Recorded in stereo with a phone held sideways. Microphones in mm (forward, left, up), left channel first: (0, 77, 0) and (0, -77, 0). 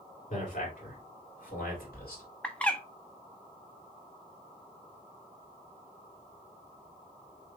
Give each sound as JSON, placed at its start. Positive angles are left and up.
{"t": 0.3, "sound": "a man speaking", "side_deg": 60, "distance_m": 2.5}
{"t": 2.4, "sound": "a bird", "side_deg": 10, "distance_m": 0.6}